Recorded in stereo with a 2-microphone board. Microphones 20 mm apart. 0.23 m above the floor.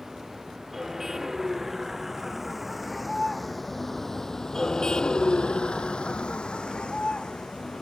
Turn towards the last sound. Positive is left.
turn(degrees=65)  # may be behind; listen again after turning